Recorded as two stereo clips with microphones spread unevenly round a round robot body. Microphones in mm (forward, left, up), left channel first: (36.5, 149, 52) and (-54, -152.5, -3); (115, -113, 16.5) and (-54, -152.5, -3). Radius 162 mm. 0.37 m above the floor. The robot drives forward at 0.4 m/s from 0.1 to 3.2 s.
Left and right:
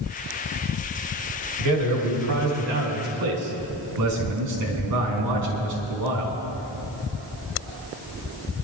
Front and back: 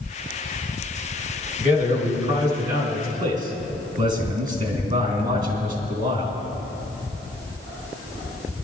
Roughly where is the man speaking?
Behind right.